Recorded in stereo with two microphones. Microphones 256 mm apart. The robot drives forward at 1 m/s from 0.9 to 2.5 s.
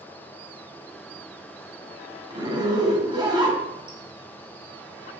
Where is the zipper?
20° right (ahead or behind), 1.5 m; by 5.2 s 15° right (ahead or behind), 1.7 m.